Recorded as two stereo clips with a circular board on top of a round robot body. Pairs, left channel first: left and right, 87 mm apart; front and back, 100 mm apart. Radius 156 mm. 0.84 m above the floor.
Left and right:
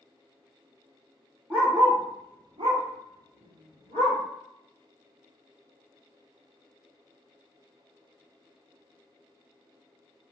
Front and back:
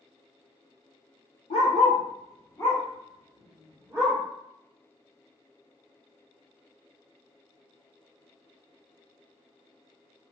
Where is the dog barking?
15° right, 0.7 m; by 4.2 s 105° right, 1.4 m.